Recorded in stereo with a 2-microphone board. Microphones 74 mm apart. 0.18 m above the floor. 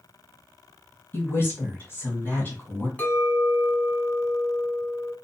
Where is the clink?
25° left (ahead or behind), 0.9 m.